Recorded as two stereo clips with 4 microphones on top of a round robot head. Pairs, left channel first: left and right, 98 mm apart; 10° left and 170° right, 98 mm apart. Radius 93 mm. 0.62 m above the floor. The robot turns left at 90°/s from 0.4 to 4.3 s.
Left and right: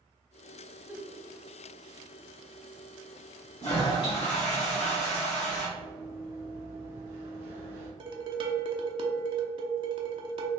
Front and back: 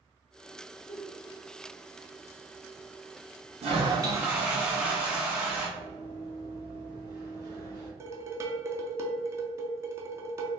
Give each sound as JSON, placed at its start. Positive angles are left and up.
{"t": 0.9, "sound": "a giggle", "azimuth_deg": -10, "distance_m": 0.9}
{"t": 3.6, "sound": "a toilet flushing", "azimuth_deg": 175, "distance_m": 1.4}
{"t": 5.8, "sound": "running footsteps", "azimuth_deg": -155, "distance_m": 1.5}
{"t": 8.0, "sound": "dishes clattering", "azimuth_deg": -115, "distance_m": 0.6}